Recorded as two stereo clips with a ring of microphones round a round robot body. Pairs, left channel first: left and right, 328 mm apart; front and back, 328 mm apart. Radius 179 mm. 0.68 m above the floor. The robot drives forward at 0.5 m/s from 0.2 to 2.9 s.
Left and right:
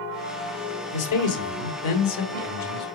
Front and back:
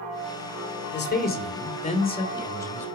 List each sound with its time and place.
0.9 s a man speaking: 60° left, 2.5 m; by 2.9 s 85° left, 2.0 m